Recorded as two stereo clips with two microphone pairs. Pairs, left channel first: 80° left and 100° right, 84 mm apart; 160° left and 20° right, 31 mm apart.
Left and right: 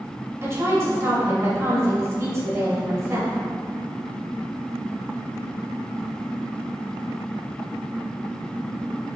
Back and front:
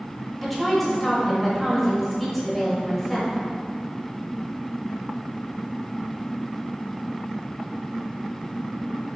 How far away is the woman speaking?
About 0.9 m.